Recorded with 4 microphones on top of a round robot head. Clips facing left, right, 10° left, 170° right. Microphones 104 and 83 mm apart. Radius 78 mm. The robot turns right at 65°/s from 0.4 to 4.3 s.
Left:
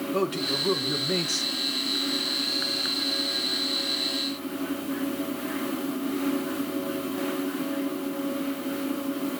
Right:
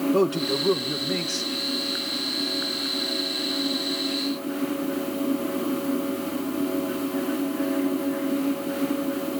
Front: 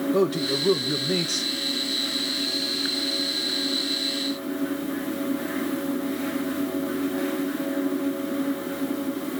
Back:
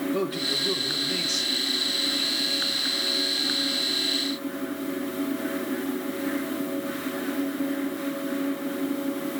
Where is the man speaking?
45° right, 1.1 m; by 1.5 s 30° left, 1.1 m.